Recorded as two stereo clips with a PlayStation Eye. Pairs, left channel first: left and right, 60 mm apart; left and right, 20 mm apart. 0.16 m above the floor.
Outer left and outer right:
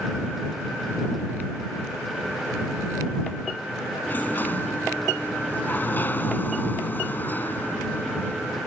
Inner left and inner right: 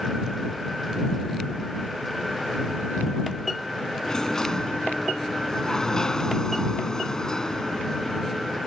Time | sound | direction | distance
4.0 | a sliding door | 35° left (ahead or behind) | ?